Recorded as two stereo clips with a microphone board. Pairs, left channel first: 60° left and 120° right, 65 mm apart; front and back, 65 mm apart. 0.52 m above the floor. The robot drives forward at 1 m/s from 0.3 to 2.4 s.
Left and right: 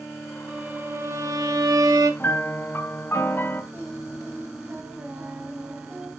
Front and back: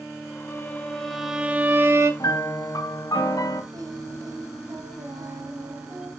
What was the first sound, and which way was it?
A violin, 55° right.